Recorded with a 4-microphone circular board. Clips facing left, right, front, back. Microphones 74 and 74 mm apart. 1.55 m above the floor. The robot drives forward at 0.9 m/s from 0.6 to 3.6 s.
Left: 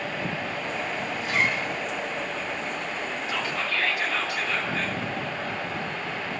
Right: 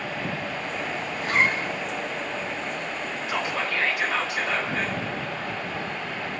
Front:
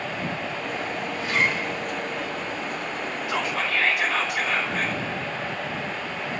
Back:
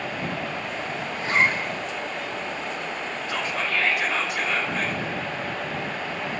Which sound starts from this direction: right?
Whispering, at 3.3 s.